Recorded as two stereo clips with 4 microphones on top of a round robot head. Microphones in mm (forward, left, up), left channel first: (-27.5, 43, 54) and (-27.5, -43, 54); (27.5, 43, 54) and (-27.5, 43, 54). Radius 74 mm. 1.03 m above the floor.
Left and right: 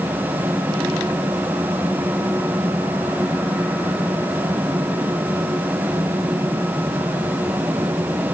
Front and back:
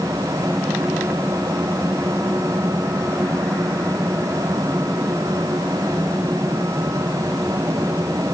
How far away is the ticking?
No ticking in this recording.